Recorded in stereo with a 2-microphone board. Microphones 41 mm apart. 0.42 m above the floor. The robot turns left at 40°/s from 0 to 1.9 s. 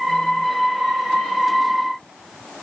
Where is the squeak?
No squeak in this recording.